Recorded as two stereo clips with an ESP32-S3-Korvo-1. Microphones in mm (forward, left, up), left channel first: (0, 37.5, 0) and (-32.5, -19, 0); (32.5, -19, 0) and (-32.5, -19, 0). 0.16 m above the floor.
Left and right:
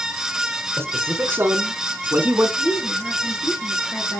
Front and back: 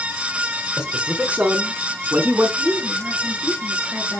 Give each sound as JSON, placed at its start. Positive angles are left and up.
{"t": 0.8, "sound": "a man speaking", "azimuth_deg": -110, "distance_m": 1.8}
{"t": 2.6, "sound": "a woman speaking", "azimuth_deg": 115, "distance_m": 2.5}